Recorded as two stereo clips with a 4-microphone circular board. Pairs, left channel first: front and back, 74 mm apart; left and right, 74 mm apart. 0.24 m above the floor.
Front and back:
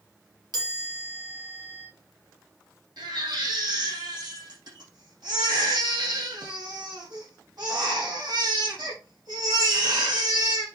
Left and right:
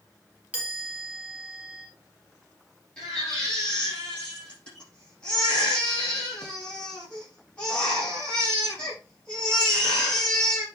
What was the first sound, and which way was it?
A chime, 160° right.